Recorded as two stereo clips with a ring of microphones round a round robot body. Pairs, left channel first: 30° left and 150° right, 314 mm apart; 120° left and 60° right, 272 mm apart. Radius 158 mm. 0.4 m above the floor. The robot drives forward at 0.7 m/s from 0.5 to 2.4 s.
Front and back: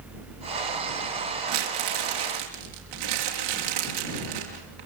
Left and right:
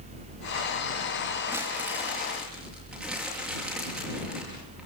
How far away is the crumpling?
About 5 m.